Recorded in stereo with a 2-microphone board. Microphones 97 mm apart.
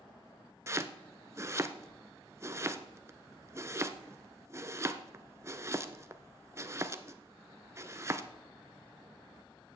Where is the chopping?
30° right (ahead or behind), 0.6 m.